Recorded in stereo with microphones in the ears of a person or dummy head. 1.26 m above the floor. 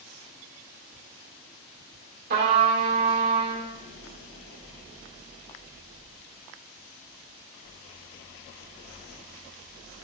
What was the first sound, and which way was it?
A trumpet, 50° right (ahead or behind).